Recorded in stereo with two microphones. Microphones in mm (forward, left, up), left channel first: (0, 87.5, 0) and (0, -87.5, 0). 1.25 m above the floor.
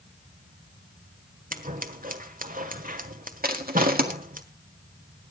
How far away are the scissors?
About 1.3 m.